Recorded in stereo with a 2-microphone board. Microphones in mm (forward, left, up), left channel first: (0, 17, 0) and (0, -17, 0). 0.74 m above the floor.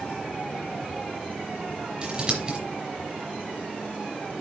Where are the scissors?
30° right (ahead or behind), 3.5 m.